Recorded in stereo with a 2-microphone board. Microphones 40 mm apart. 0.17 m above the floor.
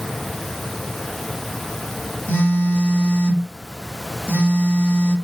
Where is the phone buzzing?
65° left (ahead or behind), 1.8 m.